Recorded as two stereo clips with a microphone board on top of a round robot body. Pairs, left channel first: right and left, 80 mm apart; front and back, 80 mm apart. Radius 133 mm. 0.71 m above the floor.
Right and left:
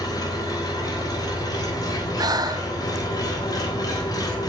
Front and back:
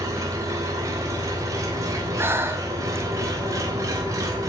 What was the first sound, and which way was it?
An engine running, 130° right.